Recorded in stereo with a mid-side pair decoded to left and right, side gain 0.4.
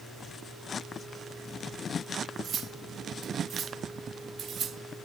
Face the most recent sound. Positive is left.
turn(degrees=-60)